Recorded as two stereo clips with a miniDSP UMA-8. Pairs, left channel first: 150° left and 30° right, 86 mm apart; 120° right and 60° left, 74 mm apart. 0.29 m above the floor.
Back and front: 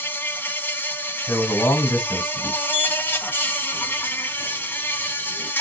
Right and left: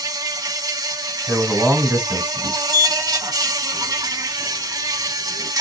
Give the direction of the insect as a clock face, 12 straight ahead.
9 o'clock.